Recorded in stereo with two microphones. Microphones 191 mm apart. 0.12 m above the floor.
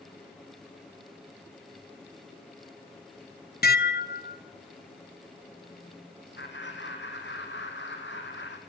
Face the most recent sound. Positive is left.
turn(degrees=70)  # may be behind; listen again after turning